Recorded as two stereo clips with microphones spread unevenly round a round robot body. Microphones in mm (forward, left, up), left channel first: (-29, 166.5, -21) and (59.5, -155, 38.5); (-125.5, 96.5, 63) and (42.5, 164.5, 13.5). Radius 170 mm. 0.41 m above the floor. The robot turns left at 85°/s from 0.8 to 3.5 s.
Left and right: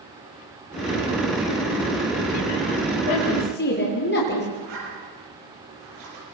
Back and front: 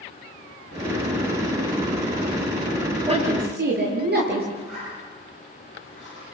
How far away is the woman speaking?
About 7 m.